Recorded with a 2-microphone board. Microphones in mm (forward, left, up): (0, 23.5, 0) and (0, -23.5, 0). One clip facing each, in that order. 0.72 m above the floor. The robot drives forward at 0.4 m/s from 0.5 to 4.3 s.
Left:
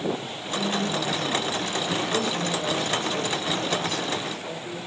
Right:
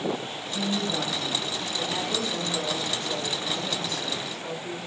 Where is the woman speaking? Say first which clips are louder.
Left 2 dB; 55° right (ahead or behind), 4 m; by 4.8 s 40° right (ahead or behind), 5 m.